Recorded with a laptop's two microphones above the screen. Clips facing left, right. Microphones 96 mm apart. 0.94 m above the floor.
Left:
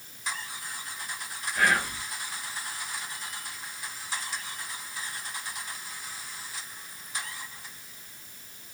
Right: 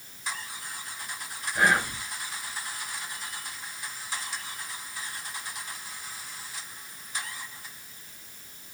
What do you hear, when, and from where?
1.6 s whispering: 25° right (ahead or behind), 0.5 m